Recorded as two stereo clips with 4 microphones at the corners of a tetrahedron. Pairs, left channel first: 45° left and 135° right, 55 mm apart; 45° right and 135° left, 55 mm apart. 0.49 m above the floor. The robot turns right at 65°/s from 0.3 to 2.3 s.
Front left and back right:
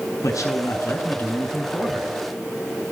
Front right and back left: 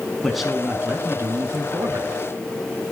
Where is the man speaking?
40° left, 5.5 m; by 2.1 s 160° left, 5.5 m.